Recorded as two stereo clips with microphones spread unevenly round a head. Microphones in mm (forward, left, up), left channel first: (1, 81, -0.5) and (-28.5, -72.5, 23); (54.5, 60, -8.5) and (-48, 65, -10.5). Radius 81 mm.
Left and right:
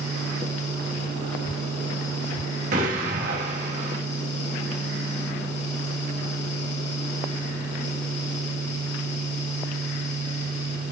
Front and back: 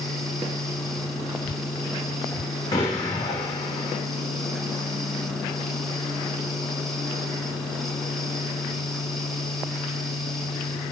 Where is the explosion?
65° right, 2.0 m.